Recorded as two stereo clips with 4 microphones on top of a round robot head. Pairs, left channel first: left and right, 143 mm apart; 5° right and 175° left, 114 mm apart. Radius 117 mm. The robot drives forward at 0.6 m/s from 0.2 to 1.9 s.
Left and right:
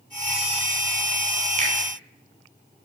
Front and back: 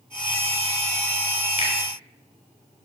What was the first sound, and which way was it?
A finger snap, 40° right.